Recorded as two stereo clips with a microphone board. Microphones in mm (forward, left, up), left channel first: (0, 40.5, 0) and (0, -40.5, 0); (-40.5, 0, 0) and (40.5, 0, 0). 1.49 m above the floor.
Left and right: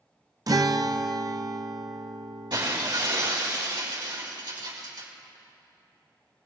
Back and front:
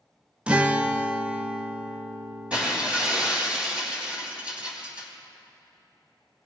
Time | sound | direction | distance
0.5 | a guitar | 70° right | 0.6 m
2.5 | breaking glass | 75° right | 4.5 m